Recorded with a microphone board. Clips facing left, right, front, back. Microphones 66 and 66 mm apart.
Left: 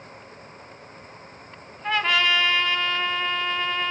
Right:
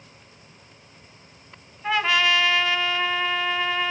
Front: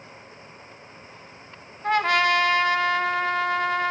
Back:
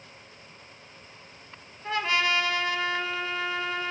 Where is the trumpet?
5° right, 1.1 m.